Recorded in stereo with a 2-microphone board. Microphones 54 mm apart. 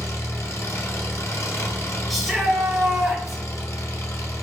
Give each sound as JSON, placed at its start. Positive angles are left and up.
{"t": 0.0, "sound": "an engine running", "side_deg": 70, "distance_m": 0.9}
{"t": 2.1, "sound": "a shout", "side_deg": 0, "distance_m": 1.1}